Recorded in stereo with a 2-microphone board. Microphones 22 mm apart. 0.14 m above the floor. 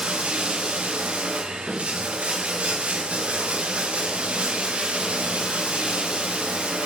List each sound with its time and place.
0.0 s running water: 75° right (ahead or behind), 3 m